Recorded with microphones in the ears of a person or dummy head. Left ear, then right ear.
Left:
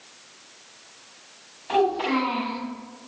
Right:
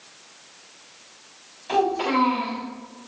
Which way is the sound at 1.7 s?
10° right (ahead or behind).